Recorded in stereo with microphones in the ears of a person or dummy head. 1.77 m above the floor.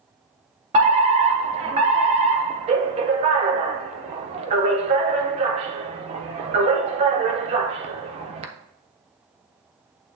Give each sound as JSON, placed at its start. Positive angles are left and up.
{"t": 0.7, "sound": "a fire alarm", "side_deg": -35, "distance_m": 1.1}